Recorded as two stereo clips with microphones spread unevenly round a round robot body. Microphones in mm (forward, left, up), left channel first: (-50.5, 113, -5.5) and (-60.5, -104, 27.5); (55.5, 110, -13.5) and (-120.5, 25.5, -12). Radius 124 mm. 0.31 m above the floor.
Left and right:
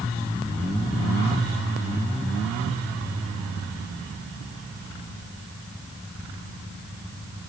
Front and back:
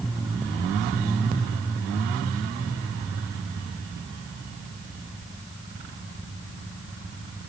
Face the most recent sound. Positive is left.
No sound to turn to.